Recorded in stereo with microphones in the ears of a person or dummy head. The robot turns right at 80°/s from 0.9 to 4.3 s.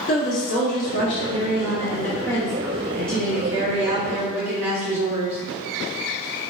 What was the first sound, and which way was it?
A woman speaking, 50° left.